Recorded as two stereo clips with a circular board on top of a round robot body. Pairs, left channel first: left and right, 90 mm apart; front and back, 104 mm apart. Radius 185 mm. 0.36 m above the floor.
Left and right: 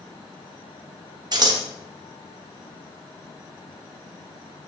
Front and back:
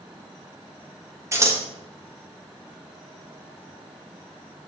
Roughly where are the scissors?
Behind right.